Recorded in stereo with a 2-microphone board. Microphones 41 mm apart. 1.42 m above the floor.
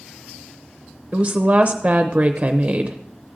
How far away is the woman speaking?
About 0.6 m.